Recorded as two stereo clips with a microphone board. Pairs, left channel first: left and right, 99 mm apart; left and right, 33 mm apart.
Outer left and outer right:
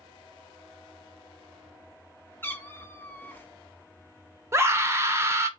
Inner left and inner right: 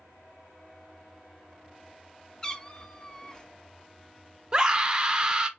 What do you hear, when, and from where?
2.4 s a cat meowing: 20° left (ahead or behind), 0.7 m
4.5 s a scream: 25° right (ahead or behind), 0.9 m